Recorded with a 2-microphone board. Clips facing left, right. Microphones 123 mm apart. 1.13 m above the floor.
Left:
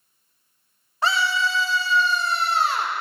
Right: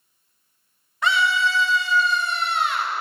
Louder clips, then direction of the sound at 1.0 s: Right 1 dB; 30° left (ahead or behind).